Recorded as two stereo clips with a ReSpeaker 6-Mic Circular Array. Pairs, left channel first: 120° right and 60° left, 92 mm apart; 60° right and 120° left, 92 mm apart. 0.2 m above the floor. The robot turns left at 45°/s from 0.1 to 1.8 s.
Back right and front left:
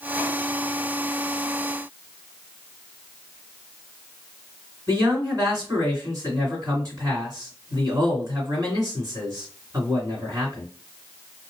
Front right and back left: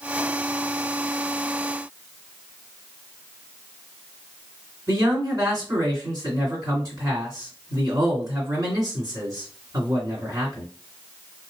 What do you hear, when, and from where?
4.9 s a man speaking: 95° left, 2.0 m